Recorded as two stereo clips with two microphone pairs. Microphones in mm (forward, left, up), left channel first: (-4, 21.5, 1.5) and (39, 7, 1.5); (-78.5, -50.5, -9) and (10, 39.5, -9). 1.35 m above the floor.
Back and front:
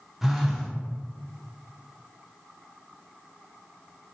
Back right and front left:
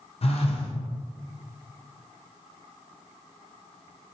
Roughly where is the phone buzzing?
Right.